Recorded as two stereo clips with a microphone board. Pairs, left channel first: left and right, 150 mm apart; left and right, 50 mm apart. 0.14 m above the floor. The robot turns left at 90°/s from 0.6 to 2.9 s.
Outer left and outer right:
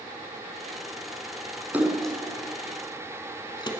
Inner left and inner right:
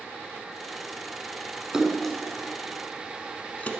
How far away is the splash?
About 0.8 m.